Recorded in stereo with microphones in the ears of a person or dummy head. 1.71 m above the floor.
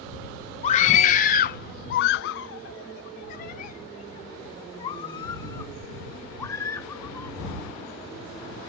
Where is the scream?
35° left (ahead or behind); by 7.4 s 15° left (ahead or behind).